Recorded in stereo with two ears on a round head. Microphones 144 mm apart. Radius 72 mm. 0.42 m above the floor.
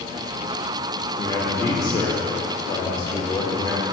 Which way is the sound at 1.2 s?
25° left (ahead or behind).